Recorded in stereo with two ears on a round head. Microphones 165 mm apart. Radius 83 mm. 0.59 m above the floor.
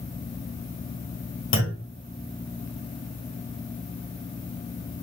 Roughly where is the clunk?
Left.